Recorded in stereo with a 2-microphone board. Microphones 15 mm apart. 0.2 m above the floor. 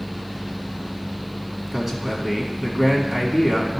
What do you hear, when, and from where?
1.7 s a man speaking: 25° right (ahead or behind), 2 m